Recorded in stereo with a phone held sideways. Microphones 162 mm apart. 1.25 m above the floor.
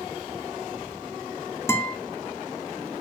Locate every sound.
1.7 s a guitar: 15° left (ahead or behind), 2 m